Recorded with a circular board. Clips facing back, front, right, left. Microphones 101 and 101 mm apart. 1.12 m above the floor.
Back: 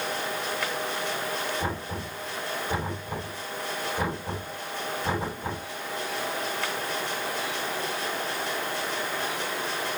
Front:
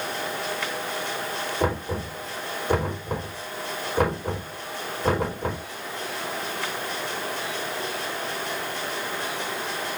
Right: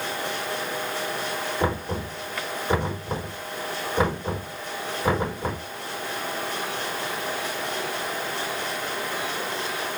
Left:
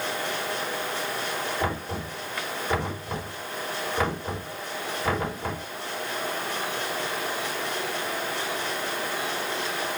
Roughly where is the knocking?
Ahead right.